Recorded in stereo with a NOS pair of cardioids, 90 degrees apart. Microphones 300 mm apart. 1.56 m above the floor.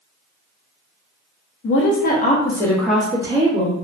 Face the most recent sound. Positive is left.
turn(degrees=-20)